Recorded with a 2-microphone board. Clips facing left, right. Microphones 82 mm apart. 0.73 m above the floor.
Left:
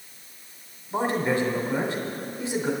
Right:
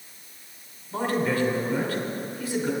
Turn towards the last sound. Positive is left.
turn(degrees=25)  # may be behind; listen again after turning